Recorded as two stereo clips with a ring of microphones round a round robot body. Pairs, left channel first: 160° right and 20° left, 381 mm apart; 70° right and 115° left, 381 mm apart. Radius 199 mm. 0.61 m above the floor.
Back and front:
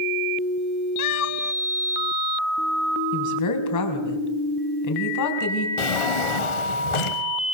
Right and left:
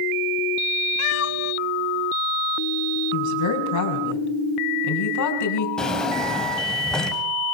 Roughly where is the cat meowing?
Behind right.